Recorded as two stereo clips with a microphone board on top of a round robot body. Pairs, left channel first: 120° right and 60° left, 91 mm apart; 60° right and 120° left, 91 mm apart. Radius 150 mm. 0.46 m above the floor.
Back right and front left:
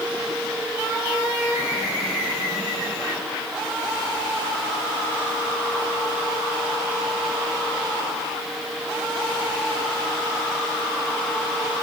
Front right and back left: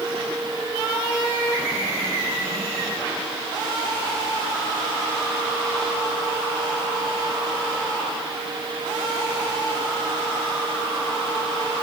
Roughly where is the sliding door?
No sliding door in this recording.